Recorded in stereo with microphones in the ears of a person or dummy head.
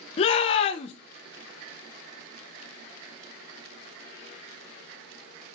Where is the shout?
35° left (ahead or behind), 0.7 m.